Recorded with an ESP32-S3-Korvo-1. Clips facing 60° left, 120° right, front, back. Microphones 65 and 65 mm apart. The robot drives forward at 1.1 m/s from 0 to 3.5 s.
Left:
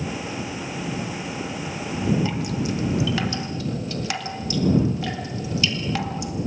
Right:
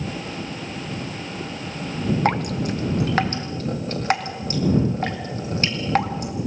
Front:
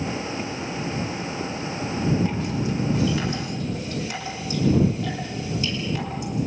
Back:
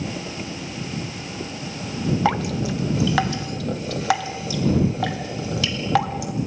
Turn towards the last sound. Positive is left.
turn(degrees=-175)